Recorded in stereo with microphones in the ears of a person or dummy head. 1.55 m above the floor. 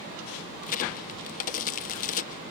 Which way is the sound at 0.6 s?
50° left (ahead or behind).